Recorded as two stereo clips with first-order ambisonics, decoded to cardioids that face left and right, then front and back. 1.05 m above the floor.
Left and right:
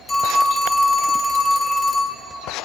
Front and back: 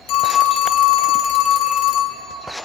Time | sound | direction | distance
0.1 | a phone ringing | 10° left | 0.9 m